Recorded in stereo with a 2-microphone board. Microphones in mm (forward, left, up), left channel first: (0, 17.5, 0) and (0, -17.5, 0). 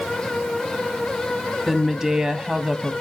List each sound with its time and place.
1.7 s a woman speaking: 10° right (ahead or behind), 1.1 m; by 2.9 s 20° right (ahead or behind), 1.1 m